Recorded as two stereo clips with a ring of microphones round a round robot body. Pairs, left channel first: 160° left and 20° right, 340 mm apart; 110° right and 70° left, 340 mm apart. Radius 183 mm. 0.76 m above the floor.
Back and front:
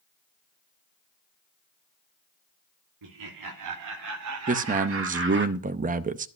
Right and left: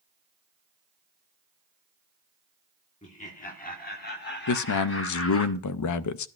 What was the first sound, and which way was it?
Laughter, 45° right.